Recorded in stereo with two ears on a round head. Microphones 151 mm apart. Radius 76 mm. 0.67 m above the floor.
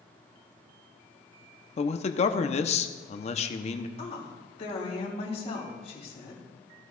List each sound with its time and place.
1.8 s a man speaking: 40° left (ahead or behind), 0.7 m
4.0 s a woman speaking: 40° left (ahead or behind), 3.5 m